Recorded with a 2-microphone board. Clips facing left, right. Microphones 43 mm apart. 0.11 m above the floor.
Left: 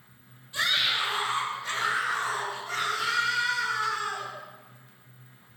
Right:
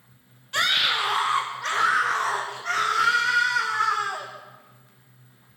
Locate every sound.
0.5 s a scream: 70° right (ahead or behind), 3 m; by 4.3 s 80° right, 6 m